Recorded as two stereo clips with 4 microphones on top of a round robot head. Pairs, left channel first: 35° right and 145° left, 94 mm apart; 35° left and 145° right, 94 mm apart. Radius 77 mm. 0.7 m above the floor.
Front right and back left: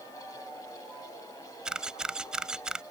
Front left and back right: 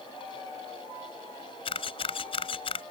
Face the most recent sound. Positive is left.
turn(degrees=65)